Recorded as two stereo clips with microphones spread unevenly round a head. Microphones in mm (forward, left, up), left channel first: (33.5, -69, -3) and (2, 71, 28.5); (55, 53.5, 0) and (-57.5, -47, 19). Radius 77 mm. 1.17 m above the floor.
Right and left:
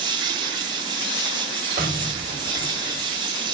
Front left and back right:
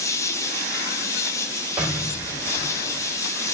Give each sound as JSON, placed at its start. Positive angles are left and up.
{"t": 0.0, "sound": "an insect", "azimuth_deg": 115, "distance_m": 1.1}
{"t": 1.8, "sound": "an explosion", "azimuth_deg": 140, "distance_m": 4.0}